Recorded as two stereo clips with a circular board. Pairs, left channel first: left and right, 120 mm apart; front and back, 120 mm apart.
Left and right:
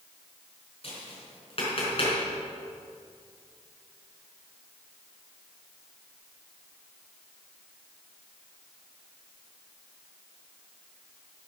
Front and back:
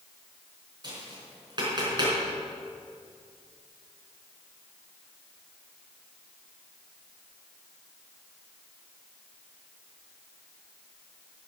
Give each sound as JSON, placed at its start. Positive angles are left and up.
{"t": 0.8, "sound": "tapping", "azimuth_deg": 125, "distance_m": 5.0}